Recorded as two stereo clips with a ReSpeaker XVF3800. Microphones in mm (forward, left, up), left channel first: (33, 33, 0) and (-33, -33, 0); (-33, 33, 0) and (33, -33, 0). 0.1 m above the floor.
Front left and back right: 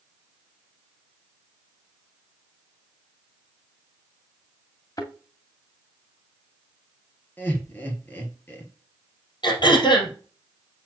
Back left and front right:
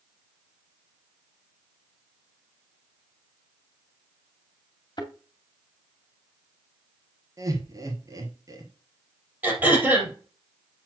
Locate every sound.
5.0 s a thud: 95° left, 2.5 m
7.4 s laughter: 15° right, 2.5 m
9.4 s throat clearing: 25° left, 3.5 m